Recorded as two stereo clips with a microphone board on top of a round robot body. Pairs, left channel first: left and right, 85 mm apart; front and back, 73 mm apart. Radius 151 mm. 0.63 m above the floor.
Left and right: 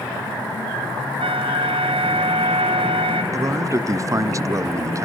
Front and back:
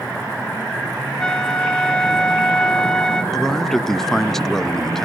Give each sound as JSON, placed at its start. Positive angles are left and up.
{"t": 1.2, "sound": "a flute", "azimuth_deg": -80, "distance_m": 2.5}
{"t": 3.3, "sound": "a man speaking", "azimuth_deg": -80, "distance_m": 0.6}